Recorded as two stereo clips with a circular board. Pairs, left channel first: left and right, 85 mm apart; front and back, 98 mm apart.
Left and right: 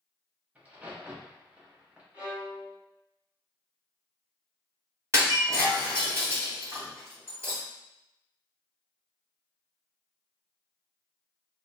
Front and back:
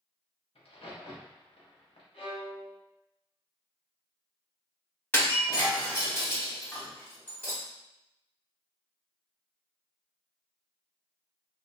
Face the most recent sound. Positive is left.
turn(degrees=-55)